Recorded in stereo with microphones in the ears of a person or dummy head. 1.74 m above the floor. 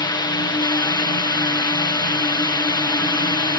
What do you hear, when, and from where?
0.0 s a drone: 20° left (ahead or behind)